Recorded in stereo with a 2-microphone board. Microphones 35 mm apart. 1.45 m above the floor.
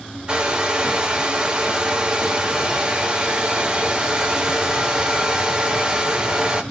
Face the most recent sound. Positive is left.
turn(degrees=-25)  # may be behind; listen again after turning